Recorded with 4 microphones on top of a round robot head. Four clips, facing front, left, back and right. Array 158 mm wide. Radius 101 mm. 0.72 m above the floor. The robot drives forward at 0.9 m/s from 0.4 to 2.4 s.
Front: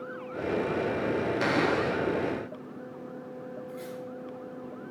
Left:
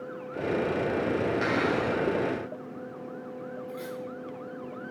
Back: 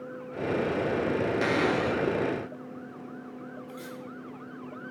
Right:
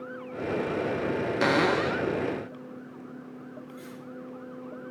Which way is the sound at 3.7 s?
105° left.